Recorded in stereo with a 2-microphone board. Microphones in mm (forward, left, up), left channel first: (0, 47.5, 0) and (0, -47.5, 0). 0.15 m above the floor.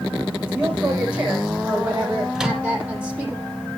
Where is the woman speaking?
15° right (ahead or behind), 7 m; by 3.4 s 20° right (ahead or behind), 4 m.